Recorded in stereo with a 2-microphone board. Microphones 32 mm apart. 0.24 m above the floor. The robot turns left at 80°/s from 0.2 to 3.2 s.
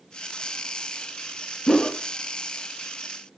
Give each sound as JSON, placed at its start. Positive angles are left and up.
{"t": 1.7, "sound": "a whoosh", "side_deg": 15, "distance_m": 0.6}